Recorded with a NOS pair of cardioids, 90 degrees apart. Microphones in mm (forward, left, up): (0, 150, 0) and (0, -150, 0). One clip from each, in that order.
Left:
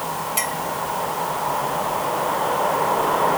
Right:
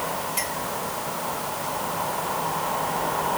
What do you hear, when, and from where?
0.4 s a clink: 35° left